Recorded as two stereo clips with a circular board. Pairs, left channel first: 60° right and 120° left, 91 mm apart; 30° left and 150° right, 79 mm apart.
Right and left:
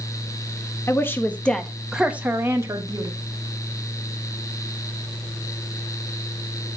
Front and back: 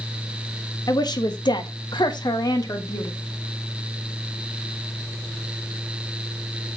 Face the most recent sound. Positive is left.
turn(degrees=75)